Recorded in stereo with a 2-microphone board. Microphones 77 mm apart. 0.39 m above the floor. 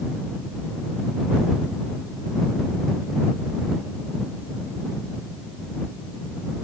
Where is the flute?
I don't hear a flute.